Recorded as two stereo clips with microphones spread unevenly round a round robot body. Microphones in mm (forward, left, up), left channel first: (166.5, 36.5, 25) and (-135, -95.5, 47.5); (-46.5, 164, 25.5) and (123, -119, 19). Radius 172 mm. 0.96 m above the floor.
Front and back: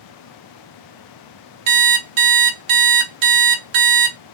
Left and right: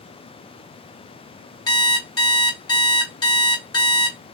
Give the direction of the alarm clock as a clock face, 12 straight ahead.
5 o'clock.